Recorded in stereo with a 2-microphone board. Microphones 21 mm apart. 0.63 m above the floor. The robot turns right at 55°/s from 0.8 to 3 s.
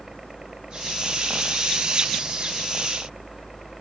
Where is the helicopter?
140° right; by 3.8 s 20° right.